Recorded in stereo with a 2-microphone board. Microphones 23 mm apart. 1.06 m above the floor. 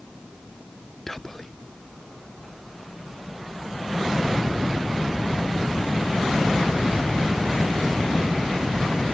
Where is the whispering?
15° left (ahead or behind), 0.6 m.